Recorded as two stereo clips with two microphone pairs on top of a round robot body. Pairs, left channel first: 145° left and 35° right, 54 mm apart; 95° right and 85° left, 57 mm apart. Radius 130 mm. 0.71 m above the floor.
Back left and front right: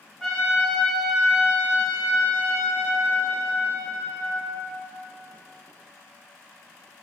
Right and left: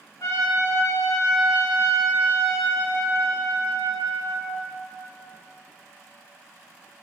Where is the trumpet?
130° right, 2 m.